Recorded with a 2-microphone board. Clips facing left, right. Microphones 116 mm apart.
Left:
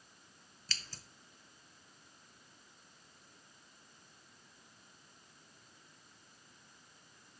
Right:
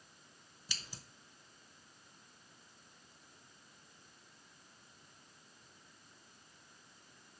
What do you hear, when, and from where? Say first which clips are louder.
0.7 s scissors: even; 10° right (ahead or behind), 0.6 m